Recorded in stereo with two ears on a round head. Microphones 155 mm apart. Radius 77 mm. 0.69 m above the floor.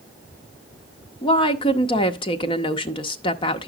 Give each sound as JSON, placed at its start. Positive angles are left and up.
{"t": 1.2, "sound": "a woman speaking", "side_deg": 30, "distance_m": 0.7}